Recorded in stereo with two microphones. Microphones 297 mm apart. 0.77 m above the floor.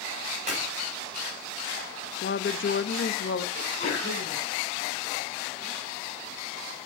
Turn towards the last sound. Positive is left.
turn(degrees=20)  # may be behind; listen again after turning